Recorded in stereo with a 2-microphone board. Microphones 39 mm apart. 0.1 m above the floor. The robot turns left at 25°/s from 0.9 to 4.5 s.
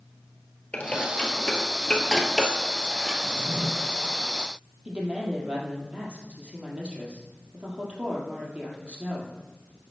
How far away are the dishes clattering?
About 1.3 m.